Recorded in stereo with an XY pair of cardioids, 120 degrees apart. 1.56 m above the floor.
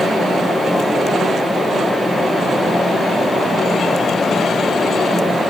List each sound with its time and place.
0.0 s a fan: 10° left, 1.3 m